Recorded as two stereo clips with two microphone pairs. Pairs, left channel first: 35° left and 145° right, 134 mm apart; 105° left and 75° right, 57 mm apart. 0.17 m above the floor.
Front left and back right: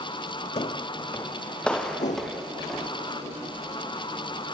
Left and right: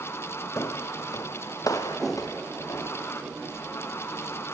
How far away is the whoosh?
About 1.5 m.